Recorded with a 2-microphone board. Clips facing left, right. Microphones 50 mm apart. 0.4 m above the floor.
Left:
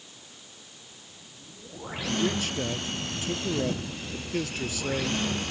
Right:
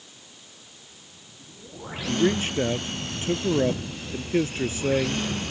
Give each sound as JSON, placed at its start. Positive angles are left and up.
{"t": 2.1, "sound": "a man speaking", "side_deg": -30}